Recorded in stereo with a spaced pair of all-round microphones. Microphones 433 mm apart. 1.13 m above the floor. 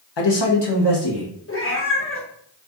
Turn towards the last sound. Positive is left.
turn(degrees=30)  # may be behind; listen again after turning